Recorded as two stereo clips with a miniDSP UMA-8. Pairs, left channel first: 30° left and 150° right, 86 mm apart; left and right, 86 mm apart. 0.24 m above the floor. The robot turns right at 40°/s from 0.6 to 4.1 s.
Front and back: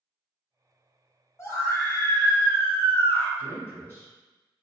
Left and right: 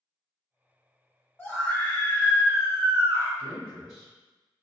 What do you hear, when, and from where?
1.4 s a scream: 35° left, 1.4 m; by 3.3 s 110° left, 1.4 m
3.4 s a man speaking: 155° left, 1.8 m; by 4.1 s 175° right, 1.8 m